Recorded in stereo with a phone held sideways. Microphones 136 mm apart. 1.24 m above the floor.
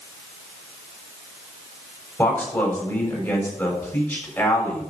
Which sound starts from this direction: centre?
A man speaking, at 2.2 s.